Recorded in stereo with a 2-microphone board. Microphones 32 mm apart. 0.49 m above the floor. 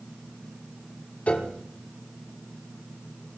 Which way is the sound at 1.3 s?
40° left (ahead or behind).